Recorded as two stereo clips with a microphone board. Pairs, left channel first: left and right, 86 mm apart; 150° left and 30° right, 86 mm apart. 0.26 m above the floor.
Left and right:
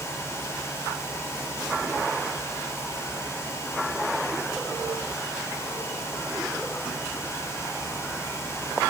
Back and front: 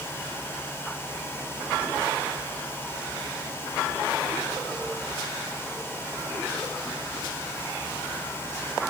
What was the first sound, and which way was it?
Only background noise.